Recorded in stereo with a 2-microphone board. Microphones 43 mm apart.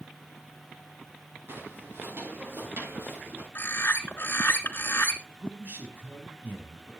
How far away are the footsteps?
About 7.5 m.